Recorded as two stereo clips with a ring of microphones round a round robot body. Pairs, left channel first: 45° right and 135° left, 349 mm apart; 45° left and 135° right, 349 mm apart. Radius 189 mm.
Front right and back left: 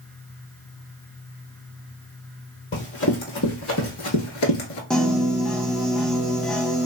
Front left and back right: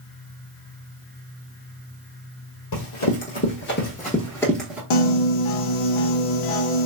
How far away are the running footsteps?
About 1.4 m.